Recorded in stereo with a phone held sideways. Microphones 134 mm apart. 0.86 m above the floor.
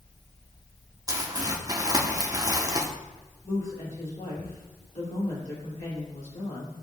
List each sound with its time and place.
1.1 s crumpling: 25° right (ahead or behind), 1.0 m
3.4 s a woman speaking: 75° left (ahead or behind), 2.5 m